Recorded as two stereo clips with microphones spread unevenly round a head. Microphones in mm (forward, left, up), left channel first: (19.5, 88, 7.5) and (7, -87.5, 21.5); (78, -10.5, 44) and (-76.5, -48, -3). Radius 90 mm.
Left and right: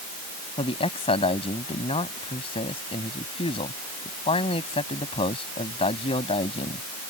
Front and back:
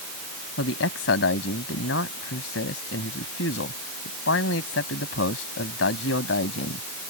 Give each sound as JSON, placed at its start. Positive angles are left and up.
{"t": 0.6, "sound": "a man speaking", "azimuth_deg": 25}